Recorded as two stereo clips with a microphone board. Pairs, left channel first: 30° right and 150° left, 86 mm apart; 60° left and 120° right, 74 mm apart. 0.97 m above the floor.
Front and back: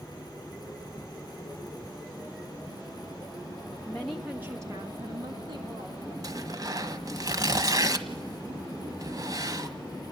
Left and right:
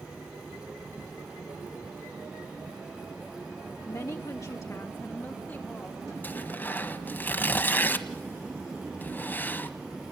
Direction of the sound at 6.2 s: 120° left.